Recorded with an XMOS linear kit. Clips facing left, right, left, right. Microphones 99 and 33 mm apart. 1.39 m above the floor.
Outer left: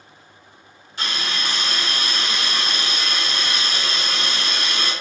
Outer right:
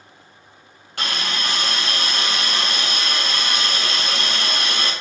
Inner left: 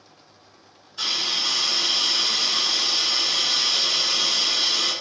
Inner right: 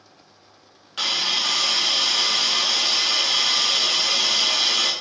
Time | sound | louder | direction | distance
1.0 | a hiss | outer right 1 dB, inner right 3 dB | 70° right (ahead or behind) | 1.6 m